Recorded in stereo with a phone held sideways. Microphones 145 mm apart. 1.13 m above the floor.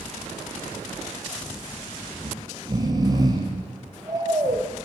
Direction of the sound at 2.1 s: 30° right (ahead or behind).